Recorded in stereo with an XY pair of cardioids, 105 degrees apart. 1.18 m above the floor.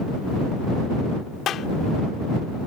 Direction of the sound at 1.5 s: 65° left.